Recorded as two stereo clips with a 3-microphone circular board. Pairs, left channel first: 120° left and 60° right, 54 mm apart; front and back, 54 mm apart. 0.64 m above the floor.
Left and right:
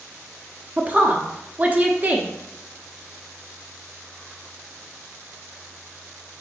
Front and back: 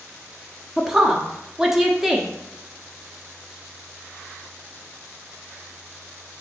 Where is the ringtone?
I don't hear a ringtone.